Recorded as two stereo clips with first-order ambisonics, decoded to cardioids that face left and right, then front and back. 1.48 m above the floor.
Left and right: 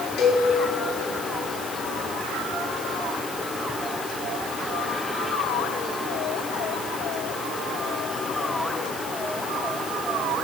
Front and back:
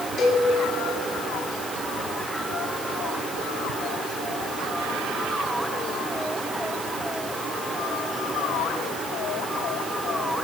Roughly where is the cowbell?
Ahead left.